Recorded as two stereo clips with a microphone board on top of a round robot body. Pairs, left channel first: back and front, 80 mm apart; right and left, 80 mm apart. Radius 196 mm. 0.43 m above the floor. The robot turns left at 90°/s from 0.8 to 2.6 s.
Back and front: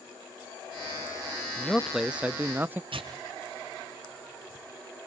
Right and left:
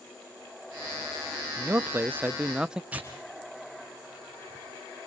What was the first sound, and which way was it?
A man speaking, 115° left.